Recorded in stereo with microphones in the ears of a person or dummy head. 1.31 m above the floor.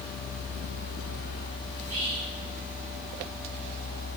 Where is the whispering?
35° right (ahead or behind), 1.7 m.